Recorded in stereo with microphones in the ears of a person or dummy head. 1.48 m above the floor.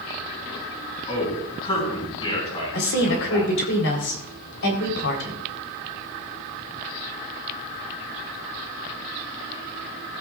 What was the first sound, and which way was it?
A man speaking, 25° left (ahead or behind).